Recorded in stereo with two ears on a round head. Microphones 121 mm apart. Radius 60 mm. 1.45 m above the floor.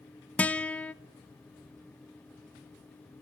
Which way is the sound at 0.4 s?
10° left (ahead or behind).